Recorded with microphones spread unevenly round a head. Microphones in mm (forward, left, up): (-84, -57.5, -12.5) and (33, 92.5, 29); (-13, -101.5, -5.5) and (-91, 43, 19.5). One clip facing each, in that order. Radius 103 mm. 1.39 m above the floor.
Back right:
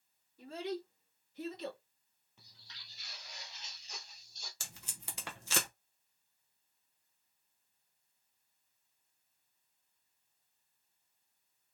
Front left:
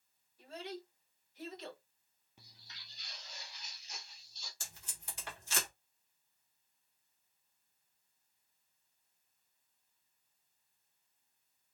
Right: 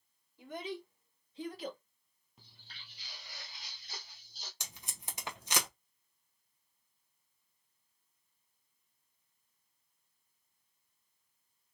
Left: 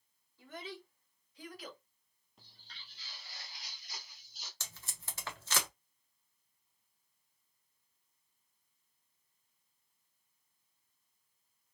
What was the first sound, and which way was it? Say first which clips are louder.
A child speaking: back right 6 dB, right 5 dB; 135° right.